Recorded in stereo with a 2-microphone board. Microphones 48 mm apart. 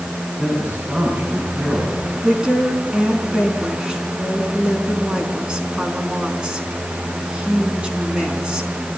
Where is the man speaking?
35° right (ahead or behind), 6 m.